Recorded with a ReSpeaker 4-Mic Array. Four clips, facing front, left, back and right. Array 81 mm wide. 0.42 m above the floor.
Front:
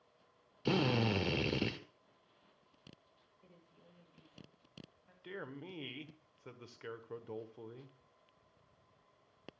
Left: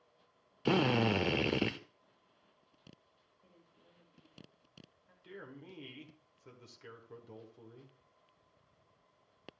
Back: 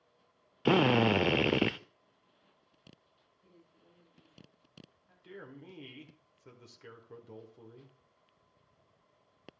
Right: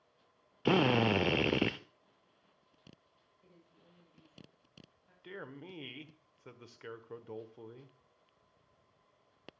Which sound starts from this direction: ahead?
A woman speaking, at 3.4 s.